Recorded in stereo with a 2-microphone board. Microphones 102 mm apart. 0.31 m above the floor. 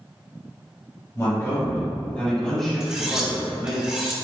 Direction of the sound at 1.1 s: 30° left (ahead or behind).